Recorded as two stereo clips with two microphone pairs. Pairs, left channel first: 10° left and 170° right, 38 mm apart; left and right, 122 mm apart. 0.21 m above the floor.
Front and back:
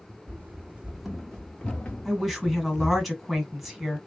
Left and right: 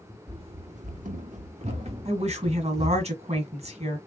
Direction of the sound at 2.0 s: 80° right.